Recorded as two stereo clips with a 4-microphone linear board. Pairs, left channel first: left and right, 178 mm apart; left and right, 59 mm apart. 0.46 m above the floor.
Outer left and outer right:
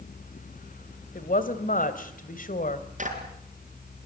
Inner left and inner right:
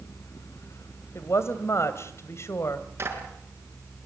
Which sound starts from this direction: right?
A clap, at 3.0 s.